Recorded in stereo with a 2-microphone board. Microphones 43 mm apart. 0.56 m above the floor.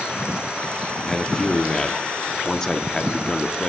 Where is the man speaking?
15° left (ahead or behind), 0.7 m.